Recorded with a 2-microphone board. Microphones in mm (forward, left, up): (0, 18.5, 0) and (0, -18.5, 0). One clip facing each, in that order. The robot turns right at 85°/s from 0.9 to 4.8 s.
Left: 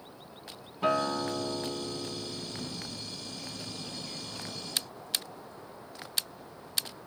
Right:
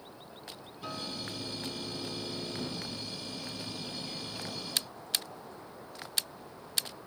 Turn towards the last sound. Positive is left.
turn(degrees=35)